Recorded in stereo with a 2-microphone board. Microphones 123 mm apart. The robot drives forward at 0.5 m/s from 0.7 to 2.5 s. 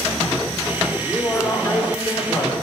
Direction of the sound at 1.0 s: 10° left (ahead or behind).